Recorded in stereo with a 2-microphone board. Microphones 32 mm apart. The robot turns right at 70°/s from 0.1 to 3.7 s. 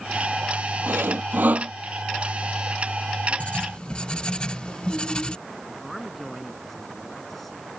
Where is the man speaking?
5° left (ahead or behind).